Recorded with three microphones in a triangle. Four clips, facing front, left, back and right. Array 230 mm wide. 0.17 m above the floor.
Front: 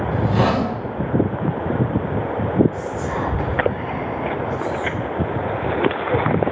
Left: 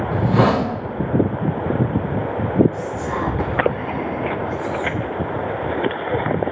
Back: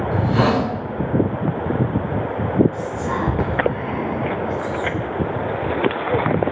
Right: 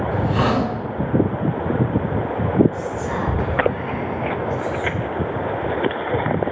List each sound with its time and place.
0.1 s a hiss: 110° left, 1.9 m
2.7 s whispering: 175° right, 3 m